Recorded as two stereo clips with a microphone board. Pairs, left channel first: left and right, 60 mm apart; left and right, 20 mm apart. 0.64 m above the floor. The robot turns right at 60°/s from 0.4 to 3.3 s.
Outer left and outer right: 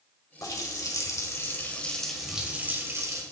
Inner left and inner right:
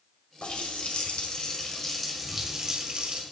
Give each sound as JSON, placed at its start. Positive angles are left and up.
{"t": 0.4, "sound": "a running tap", "azimuth_deg": 75, "distance_m": 1.9}